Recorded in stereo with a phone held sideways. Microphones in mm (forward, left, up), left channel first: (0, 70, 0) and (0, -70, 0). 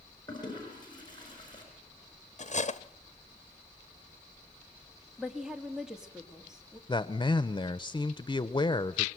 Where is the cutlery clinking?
55° left (ahead or behind), 0.8 m.